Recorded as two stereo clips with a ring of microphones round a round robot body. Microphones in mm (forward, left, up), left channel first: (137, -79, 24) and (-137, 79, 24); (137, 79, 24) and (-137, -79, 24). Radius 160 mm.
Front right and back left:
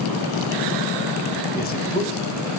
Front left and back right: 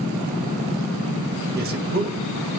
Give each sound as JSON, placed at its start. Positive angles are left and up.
{"t": 1.6, "sound": "a man speaking", "azimuth_deg": -90, "distance_m": 2.5}